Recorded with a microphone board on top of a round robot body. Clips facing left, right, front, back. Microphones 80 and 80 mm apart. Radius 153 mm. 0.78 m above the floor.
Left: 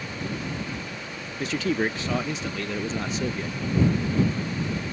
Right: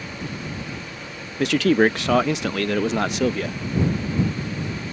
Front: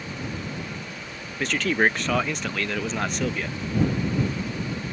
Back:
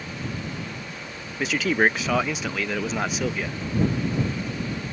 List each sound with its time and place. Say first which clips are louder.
1.4 s a man speaking: right 8 dB, back 1 dB; 95° right